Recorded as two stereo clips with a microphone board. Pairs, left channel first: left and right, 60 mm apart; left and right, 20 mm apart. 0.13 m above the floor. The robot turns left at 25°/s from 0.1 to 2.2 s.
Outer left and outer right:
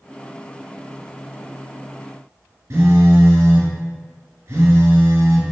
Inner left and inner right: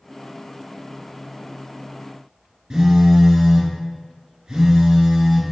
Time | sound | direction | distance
2.7 | a phone buzzing | 50° right (ahead or behind) | 1.3 m